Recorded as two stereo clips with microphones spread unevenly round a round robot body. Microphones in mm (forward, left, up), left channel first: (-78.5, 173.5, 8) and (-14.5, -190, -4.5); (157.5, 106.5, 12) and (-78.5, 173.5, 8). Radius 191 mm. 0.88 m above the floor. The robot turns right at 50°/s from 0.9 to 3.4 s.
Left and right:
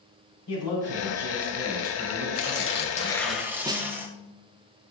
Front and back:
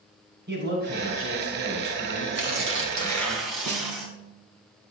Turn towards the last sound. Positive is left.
turn(degrees=-160)